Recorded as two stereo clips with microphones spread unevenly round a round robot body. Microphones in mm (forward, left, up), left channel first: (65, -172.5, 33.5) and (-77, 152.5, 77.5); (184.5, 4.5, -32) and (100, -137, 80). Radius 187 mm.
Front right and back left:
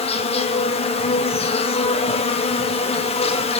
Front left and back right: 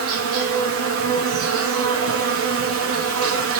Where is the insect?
135° right, 0.9 m.